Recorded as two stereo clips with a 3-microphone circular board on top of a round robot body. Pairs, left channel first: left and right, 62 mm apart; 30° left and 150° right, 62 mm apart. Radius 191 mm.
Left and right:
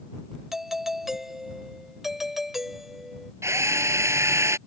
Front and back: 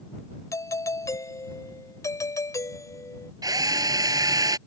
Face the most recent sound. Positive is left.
turn(degrees=-135)